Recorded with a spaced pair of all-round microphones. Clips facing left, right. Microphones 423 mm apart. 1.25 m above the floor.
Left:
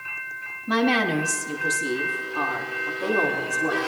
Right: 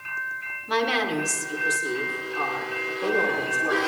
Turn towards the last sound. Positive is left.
turn(degrees=85)